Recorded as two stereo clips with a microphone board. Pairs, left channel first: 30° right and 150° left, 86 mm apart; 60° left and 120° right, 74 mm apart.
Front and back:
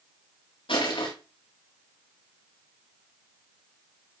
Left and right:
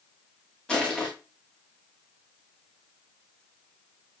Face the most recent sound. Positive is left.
turn(degrees=-20)